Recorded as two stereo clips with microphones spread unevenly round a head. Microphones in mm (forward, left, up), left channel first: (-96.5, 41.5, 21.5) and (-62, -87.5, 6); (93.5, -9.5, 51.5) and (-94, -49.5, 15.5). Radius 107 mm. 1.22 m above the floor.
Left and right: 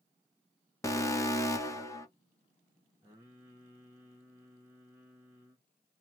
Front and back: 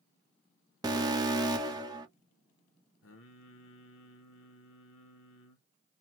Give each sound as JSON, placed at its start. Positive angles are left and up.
{"t": 0.8, "sound": "an alarm", "azimuth_deg": 160, "distance_m": 1.0}
{"t": 3.0, "sound": "singing", "azimuth_deg": 0, "distance_m": 1.1}